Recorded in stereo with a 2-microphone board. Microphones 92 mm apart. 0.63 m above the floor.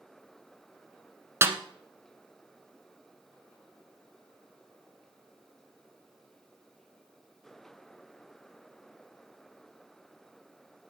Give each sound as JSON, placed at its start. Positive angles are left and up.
{"t": 1.4, "sound": "a snare drum", "side_deg": -25, "distance_m": 1.0}